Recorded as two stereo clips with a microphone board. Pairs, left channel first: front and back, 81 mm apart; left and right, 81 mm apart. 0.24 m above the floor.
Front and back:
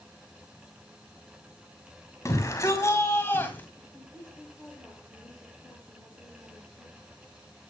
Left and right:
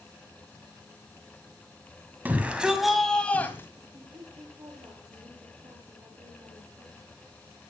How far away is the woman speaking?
About 6.5 m.